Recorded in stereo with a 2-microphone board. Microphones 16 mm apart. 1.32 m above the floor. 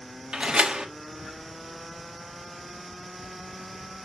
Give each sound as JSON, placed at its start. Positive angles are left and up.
{"t": 0.3, "sound": "a door slam", "side_deg": -65, "distance_m": 1.3}